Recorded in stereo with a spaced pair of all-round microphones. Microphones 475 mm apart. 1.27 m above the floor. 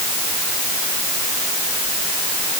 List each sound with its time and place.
Only background noise.